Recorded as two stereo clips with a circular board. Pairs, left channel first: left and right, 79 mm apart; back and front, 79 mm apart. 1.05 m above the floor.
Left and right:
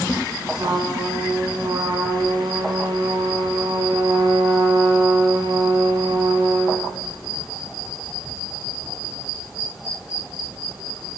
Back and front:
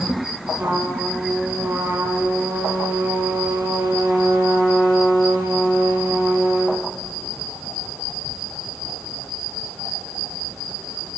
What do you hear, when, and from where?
0.6 s a trumpet: 65° right, 3.5 m